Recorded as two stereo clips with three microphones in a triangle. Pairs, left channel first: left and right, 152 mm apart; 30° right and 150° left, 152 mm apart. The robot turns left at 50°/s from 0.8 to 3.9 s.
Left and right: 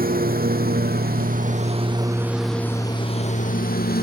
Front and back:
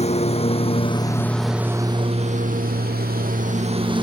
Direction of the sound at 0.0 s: 75° right.